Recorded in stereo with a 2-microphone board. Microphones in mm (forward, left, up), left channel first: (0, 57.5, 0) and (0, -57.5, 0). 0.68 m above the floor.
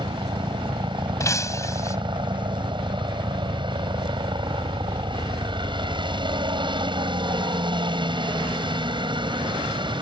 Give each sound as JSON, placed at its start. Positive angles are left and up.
{"t": 0.0, "sound": "a helicopter", "side_deg": -45}
{"t": 1.2, "sound": "breaking glass", "side_deg": 30}